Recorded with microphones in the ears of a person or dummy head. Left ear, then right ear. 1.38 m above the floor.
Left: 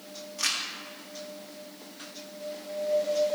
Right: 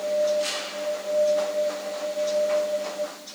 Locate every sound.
0.4 s crumpling: 40° left (ahead or behind), 1.4 m